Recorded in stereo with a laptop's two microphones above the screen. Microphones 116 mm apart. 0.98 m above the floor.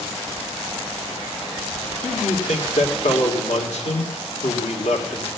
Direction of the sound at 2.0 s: 80° left.